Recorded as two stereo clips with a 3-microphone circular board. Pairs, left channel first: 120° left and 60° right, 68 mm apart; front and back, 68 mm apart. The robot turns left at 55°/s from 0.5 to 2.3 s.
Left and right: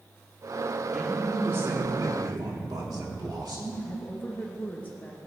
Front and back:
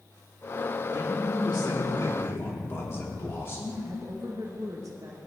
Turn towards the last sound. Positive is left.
turn(degrees=175)